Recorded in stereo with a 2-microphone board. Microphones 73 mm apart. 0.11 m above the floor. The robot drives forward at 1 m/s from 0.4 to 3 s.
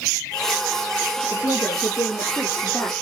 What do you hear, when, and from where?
1.3 s a woman speaking: 45° left (ahead or behind), 1.5 m; by 2.9 s 35° left (ahead or behind), 2.0 m